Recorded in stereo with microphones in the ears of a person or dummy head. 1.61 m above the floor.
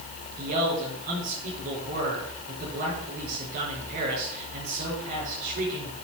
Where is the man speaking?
50° right (ahead or behind), 6 m.